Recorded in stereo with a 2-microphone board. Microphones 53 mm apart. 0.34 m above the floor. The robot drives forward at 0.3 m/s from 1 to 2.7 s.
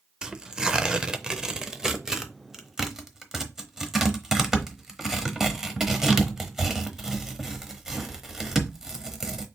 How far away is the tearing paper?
About 0.5 m.